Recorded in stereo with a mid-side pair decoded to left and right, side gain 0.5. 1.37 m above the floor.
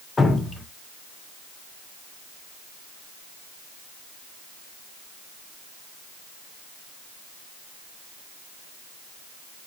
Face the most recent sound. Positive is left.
turn(degrees=25)